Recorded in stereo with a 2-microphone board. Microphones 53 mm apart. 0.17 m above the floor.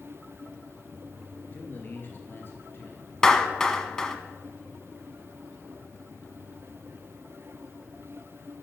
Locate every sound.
1.5 s a man speaking: 35° left (ahead or behind), 2.5 m; by 3.1 s 45° left (ahead or behind), 3 m
3.2 s a clap: 10° left (ahead or behind), 0.9 m